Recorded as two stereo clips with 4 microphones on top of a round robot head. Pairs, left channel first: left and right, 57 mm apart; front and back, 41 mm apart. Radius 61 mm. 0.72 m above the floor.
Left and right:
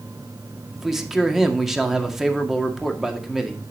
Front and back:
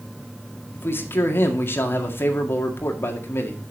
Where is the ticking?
No ticking in this recording.